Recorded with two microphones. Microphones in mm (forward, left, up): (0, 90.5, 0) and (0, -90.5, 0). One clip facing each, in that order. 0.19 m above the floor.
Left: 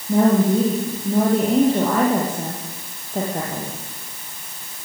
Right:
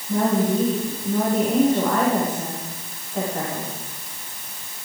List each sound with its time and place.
0.1 s a woman speaking: 30° left (ahead or behind), 7 m